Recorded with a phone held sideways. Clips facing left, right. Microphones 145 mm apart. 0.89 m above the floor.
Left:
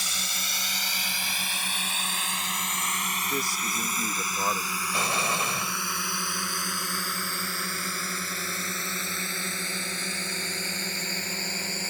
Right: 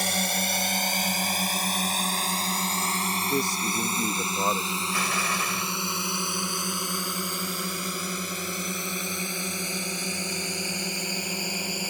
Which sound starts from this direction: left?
An explosion, at 4.9 s.